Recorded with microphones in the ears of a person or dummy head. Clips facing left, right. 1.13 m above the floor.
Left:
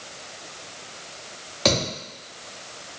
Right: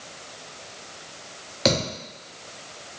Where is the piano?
No piano in this recording.